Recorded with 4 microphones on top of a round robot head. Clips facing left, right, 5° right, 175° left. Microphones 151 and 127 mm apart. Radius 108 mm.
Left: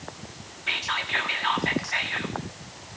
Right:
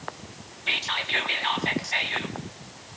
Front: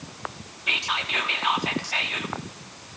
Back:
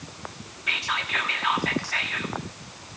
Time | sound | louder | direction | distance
0.7 | whispering | even, even | 55° right | 0.9 m